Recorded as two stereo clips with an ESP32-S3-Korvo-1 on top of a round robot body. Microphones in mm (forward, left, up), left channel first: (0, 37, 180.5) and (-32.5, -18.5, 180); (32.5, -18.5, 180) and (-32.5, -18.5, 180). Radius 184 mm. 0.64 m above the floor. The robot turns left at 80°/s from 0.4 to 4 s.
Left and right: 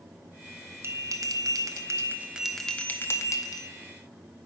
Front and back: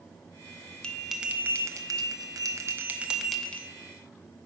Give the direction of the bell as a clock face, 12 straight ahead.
3 o'clock.